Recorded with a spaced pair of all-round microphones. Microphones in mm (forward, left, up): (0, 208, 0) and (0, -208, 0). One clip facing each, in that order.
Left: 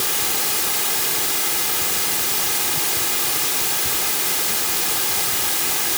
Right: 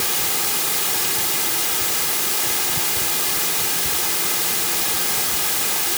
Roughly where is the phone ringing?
I don't hear a phone ringing.